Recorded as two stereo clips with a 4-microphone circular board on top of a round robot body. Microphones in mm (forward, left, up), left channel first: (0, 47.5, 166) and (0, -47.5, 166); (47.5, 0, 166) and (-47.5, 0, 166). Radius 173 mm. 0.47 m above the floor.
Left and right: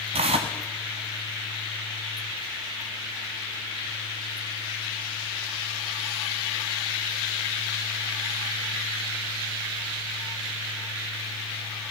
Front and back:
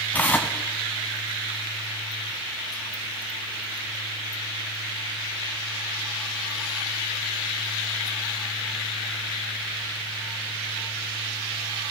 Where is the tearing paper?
75° right, 0.6 m.